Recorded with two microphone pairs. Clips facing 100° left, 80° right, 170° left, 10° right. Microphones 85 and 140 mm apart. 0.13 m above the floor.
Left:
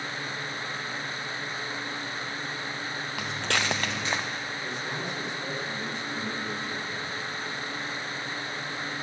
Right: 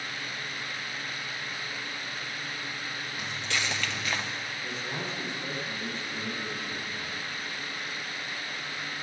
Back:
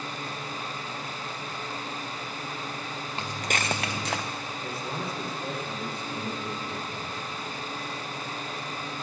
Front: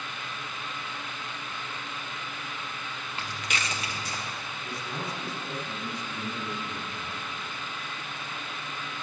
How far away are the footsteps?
About 1.0 m.